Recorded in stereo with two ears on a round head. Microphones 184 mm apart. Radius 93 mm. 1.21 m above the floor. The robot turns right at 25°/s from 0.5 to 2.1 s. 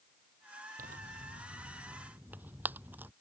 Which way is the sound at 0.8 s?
40° right (ahead or behind).